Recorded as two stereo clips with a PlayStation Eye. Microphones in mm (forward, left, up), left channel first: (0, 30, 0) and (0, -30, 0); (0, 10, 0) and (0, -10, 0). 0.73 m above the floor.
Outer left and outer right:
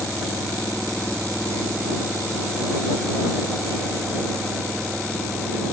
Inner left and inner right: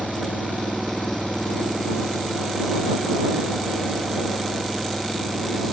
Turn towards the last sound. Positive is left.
turn(degrees=15)  # may be behind; listen again after turning